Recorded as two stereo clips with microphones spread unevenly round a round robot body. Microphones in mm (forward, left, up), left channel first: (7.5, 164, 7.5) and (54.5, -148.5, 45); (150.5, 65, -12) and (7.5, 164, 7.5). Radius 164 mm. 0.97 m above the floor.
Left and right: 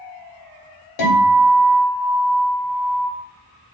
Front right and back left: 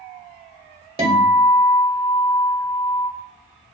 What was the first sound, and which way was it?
A guitar, 85° left.